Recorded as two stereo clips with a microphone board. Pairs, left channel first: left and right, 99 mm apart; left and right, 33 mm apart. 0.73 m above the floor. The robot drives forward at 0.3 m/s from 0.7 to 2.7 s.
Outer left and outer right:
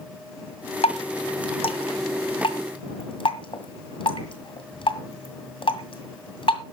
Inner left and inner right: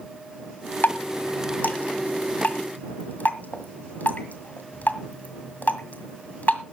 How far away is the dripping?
About 1.7 m.